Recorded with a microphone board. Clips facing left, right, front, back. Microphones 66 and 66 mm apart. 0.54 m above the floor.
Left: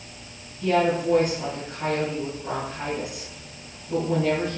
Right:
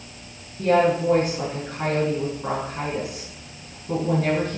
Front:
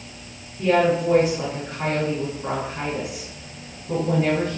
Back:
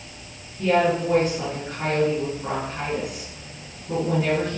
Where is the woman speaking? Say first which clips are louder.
Right 3 dB, front 1 dB; 85° right, 5.5 m.